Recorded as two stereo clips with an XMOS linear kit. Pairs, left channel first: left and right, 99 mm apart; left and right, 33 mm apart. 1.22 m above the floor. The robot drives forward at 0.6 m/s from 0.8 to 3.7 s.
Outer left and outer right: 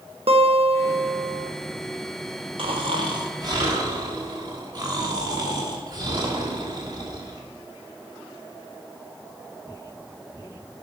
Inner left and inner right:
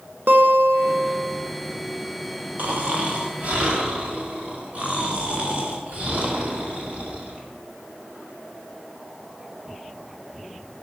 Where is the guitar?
80° right, 1.1 m; by 1.5 s 60° right (ahead or behind), 1.2 m.